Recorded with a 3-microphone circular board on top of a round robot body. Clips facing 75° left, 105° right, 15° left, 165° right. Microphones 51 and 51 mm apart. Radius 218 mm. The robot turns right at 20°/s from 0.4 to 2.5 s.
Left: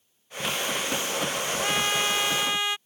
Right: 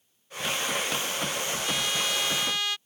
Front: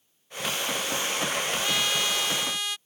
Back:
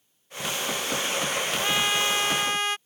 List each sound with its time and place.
1.6 s a trumpet: 125° left; by 2.8 s 145° left